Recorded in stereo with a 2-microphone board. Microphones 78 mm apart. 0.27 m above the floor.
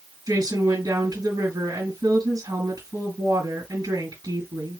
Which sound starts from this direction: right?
A woman speaking, at 0.3 s.